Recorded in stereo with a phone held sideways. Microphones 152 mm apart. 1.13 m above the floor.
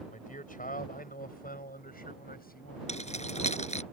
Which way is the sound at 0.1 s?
65° left (ahead or behind).